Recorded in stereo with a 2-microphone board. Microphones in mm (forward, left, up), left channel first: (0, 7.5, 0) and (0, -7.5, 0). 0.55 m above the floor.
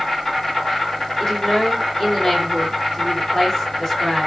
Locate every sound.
0.0 s an insect: 20° left (ahead or behind), 2.5 m
1.2 s a woman speaking: 20° left (ahead or behind), 2.5 m